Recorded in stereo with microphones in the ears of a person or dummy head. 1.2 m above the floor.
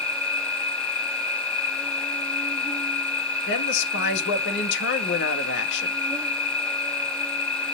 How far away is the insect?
About 2 m.